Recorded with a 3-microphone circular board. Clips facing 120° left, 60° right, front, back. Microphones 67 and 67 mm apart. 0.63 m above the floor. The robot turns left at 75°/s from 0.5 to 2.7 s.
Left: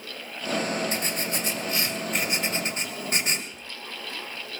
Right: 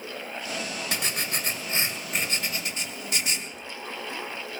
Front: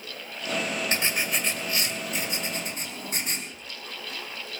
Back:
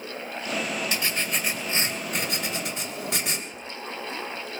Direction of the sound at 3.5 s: 165° left.